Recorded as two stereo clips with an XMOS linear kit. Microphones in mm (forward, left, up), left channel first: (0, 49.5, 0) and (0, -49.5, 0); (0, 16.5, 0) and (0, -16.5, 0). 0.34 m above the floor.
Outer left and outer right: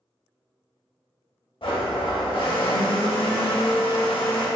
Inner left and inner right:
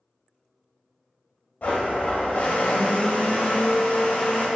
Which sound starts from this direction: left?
A blender, at 1.6 s.